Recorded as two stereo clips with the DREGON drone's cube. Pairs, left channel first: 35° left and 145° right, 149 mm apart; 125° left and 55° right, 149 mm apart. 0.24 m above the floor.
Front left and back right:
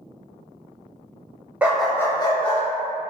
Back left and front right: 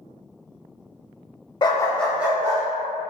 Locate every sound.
1.6 s a dog barking: 140° left, 0.5 m; by 2.6 s straight ahead, 0.7 m